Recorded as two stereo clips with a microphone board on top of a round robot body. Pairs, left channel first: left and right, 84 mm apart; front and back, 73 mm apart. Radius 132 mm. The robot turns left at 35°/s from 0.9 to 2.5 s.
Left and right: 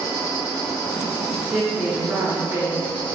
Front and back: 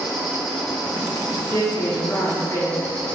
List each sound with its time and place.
0.0 s an insect: 135° left, 1.0 m; by 3.1 s 80° left, 1.0 m
1.5 s a woman speaking: 5° left, 0.8 m; by 2.8 s 30° right, 0.8 m